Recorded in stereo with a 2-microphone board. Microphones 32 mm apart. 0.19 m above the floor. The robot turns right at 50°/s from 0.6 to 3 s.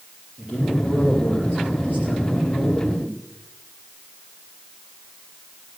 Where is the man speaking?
Straight behind, 4.5 m; by 3.2 s 60° right, 4.5 m.